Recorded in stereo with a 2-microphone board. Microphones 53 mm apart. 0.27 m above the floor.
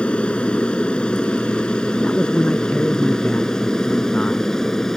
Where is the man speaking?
25° left (ahead or behind).